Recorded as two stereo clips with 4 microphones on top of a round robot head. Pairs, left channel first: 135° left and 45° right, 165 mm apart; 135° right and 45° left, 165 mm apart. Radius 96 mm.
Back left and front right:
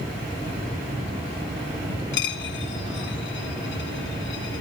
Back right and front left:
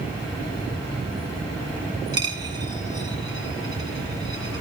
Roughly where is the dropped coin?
Behind left.